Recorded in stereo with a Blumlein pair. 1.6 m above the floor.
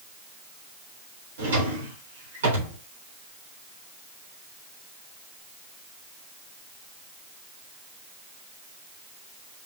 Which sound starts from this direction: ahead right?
A drawer, at 1.4 s.